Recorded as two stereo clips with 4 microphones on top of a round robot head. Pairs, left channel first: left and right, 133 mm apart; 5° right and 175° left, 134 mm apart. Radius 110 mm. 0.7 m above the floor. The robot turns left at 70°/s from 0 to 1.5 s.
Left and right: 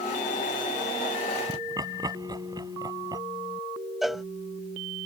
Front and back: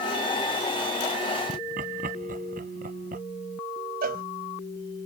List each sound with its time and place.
1.5 s laughter: 150° right
4.0 s a cowbell: straight behind